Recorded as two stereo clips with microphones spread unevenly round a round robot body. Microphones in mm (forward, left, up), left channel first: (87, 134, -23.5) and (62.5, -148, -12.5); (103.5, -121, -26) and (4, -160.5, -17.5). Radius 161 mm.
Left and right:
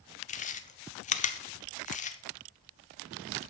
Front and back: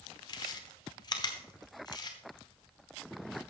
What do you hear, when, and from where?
0.3 s chewing: 35° left, 0.7 m